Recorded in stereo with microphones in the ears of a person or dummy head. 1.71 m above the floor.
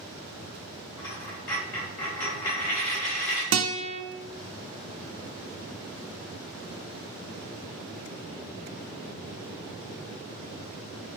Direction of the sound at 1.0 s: 10° left (ahead or behind).